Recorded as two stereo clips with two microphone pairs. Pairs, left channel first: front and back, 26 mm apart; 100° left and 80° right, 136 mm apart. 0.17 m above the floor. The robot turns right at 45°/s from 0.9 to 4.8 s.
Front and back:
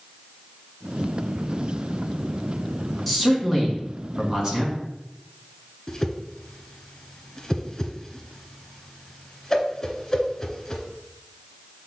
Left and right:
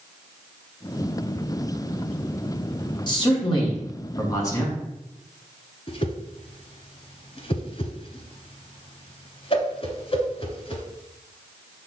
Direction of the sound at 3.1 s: 80° left.